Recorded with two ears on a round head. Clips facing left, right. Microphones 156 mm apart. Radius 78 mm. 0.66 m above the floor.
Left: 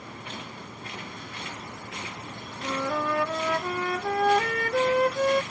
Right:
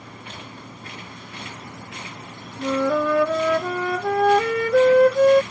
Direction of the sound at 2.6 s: 75° right (ahead or behind).